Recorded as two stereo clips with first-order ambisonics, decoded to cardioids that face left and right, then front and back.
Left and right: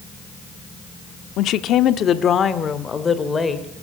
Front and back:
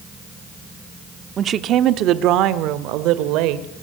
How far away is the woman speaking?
About 1.0 m.